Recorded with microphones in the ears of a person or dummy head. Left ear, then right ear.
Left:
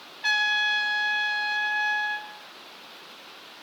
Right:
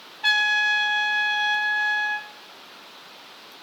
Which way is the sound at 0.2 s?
35° right (ahead or behind).